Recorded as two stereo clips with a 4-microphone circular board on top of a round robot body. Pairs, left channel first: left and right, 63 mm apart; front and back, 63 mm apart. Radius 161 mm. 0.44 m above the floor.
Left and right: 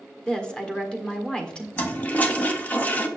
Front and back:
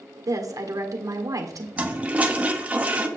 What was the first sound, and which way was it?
A woman speaking, 165° left.